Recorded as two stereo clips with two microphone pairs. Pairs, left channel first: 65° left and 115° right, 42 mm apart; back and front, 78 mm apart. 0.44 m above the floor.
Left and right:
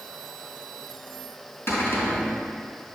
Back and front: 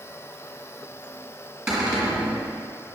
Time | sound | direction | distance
1.7 | a cupboard door | 85° left | 2.5 m